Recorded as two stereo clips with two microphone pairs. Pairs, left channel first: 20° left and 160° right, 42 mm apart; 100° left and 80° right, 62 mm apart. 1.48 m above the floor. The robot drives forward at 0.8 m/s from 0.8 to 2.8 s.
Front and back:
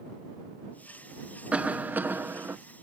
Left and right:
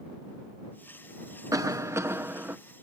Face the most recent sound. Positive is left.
turn(degrees=-140)